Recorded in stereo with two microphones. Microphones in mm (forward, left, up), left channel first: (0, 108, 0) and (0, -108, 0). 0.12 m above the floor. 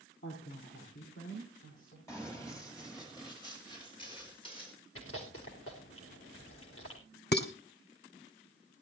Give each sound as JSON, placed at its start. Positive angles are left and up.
{"t": 0.2, "sound": "a woman speaking", "side_deg": 65, "distance_m": 4.5}
{"t": 2.1, "sound": "running footsteps", "side_deg": 15, "distance_m": 5.0}
{"t": 5.0, "sound": "chewing", "side_deg": 80, "distance_m": 4.0}
{"t": 7.3, "sound": "dishes clattering", "side_deg": 50, "distance_m": 1.4}